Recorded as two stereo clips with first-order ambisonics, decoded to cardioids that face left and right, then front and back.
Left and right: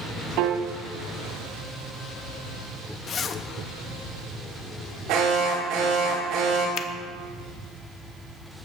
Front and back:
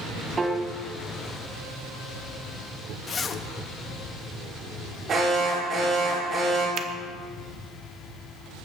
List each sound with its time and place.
0.4 s a piano: 110° right, 1.0 m
3.1 s a zipper: 50° left, 0.7 m
5.1 s an alarm: 120° right, 5 m
6.8 s a finger snap: 130° left, 0.9 m